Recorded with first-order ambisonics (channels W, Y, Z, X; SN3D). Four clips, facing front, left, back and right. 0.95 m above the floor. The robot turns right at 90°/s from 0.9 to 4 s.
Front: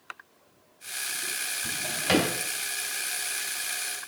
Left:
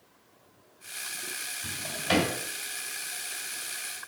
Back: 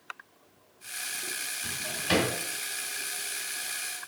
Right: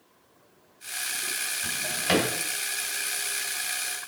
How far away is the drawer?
About 2 m.